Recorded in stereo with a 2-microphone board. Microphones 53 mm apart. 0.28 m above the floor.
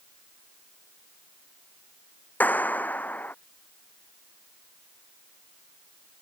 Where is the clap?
35° left (ahead or behind).